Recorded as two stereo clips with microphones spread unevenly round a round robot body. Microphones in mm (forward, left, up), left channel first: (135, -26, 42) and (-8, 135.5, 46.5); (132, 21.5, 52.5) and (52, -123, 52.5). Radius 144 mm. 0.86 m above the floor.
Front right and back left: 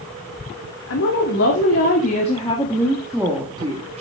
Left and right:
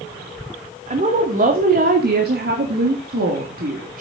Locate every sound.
0.9 s a woman speaking: 80° right, 2.5 m; by 4.0 s 165° right, 2 m